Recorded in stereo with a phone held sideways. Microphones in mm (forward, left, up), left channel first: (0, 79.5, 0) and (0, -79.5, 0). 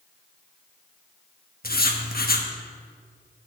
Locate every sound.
1.6 s writing: 70° left (ahead or behind), 0.9 m